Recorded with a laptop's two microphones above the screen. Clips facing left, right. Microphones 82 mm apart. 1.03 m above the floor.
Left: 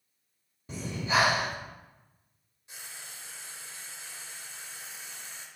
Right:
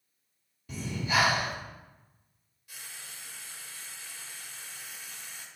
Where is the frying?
25° left (ahead or behind), 0.9 m.